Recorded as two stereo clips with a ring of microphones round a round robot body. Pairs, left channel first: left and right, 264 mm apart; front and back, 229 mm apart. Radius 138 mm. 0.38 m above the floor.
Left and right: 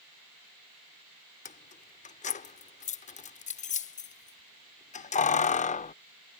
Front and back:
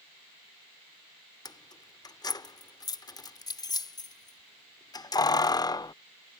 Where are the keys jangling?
60° left.